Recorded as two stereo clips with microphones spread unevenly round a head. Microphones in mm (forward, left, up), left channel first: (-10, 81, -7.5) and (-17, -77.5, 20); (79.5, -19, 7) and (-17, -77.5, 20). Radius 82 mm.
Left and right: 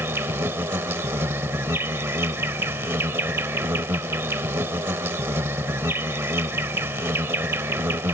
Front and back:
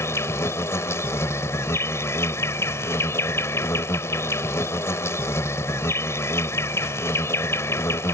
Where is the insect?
35° right.